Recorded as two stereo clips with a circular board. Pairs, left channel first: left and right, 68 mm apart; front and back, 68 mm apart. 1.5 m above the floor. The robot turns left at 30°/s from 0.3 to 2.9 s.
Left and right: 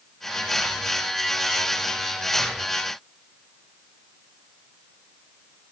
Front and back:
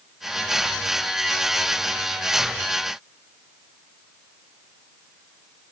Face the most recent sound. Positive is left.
No sound to turn to.